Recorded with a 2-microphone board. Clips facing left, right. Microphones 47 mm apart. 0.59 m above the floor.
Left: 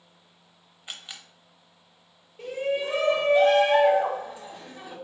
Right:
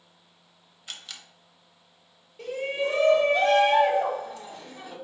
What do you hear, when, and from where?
0.9 s a camera shutter: 20° left (ahead or behind), 0.7 m
2.4 s a shout: 20° left (ahead or behind), 2.5 m